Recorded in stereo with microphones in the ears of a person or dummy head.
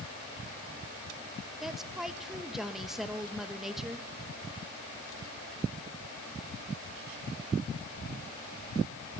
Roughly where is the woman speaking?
Centre.